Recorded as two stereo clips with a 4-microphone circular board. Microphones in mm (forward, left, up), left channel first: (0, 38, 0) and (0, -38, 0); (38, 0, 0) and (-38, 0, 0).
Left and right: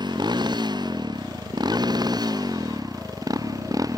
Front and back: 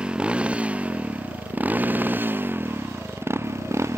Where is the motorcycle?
105° right; by 4.0 s 125° right.